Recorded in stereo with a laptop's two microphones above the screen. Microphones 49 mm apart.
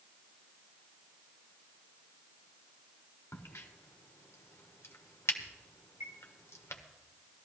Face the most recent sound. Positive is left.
turn(degrees=-60)  # may be behind; listen again after turning